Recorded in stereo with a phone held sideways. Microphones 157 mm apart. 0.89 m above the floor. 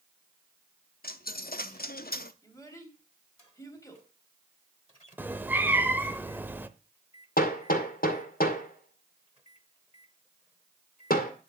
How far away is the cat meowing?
About 0.7 m.